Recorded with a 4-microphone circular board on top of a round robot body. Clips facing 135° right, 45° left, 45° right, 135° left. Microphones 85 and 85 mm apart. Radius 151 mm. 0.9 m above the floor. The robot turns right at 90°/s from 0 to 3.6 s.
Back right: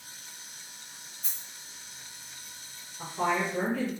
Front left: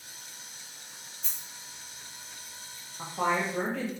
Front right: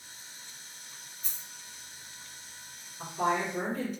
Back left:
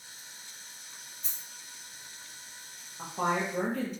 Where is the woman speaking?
90° left, 0.7 m; by 3.9 s 145° left, 0.7 m.